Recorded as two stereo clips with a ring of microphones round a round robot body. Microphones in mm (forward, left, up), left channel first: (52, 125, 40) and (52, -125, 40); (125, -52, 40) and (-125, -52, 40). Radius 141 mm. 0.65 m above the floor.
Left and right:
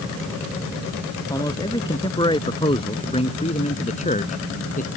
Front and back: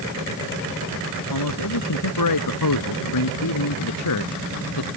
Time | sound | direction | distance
1.3 | a man speaking | 15° left | ?